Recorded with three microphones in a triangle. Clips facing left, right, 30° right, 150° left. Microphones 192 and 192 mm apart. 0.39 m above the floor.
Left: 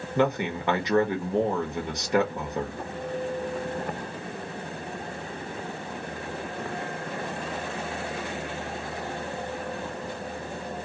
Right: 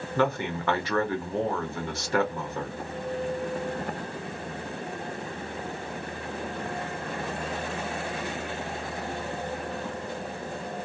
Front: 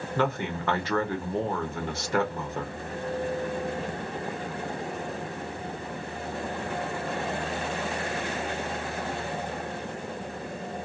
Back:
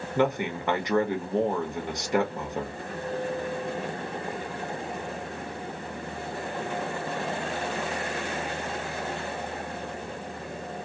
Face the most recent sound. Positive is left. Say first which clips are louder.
# left 2 dB, back 3 dB
turn(degrees=115)